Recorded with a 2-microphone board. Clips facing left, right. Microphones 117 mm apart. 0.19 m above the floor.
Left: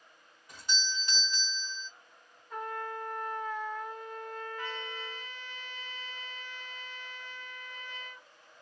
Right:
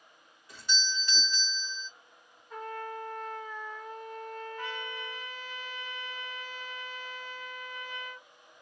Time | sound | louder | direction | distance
0.5 | a doorbell | right 2 dB | 20° left (ahead or behind) | 1.9 m
2.5 | a trumpet | left 1 dB | centre (ahead or behind) | 1.8 m
4.6 | a trumpet | right 1 dB | 15° right (ahead or behind) | 1.7 m